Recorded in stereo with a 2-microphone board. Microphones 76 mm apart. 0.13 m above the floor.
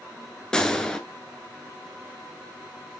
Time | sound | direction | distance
0.5 | a gunshot | 10° left (ahead or behind) | 1.0 m